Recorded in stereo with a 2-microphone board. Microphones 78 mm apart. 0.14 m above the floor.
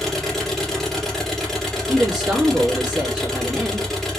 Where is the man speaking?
10° right (ahead or behind), 2.5 m.